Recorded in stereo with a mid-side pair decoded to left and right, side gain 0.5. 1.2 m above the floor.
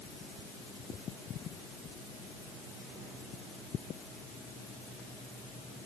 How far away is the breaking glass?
I don't hear breaking glass.